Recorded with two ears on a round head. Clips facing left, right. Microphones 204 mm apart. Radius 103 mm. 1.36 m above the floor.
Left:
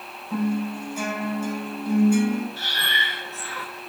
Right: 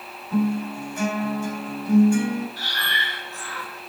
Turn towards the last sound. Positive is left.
turn(degrees=20)  # may be behind; listen again after turning